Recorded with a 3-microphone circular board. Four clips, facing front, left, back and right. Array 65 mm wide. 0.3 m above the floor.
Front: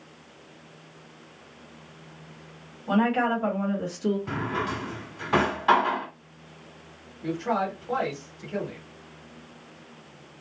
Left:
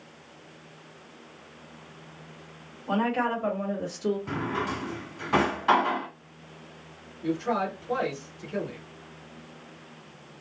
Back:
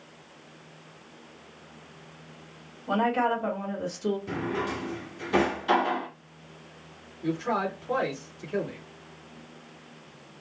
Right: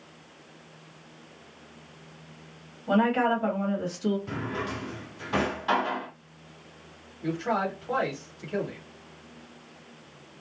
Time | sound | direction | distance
2.9 | a woman speaking | 25° right | 1.7 m
4.3 | a drawer | 25° left | 1.1 m
7.2 | a man speaking | 60° right | 1.5 m